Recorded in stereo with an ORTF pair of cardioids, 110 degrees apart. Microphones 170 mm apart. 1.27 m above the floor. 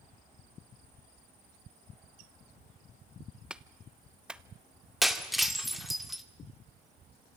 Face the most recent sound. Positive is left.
turn(degrees=0)